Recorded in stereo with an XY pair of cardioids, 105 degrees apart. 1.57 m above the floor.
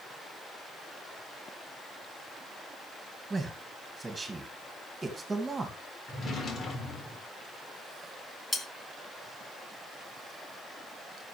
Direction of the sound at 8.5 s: 20° left.